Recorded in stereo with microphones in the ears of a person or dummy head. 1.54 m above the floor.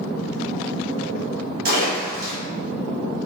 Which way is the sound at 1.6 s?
50° right (ahead or behind).